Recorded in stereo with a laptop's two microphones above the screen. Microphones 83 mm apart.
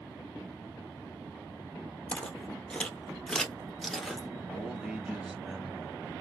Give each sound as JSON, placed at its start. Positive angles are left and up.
{"t": 2.1, "sound": "footsteps", "side_deg": 15, "distance_m": 1.2}
{"t": 4.5, "sound": "a man speaking", "side_deg": -10, "distance_m": 0.8}